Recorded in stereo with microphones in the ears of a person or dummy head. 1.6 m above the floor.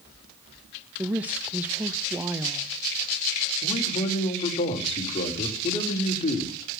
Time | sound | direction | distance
1.0 | a woman speaking | 10° right (ahead or behind) | 0.7 m
3.6 | a man speaking | 25° left (ahead or behind) | 4 m